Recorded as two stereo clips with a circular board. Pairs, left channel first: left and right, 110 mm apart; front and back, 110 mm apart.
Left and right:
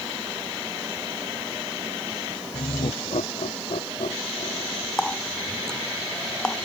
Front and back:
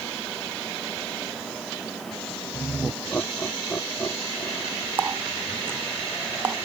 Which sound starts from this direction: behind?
A running tap, at 5.0 s.